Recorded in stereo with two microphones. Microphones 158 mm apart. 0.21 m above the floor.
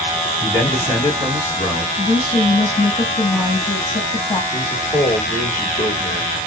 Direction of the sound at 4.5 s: 25° left (ahead or behind).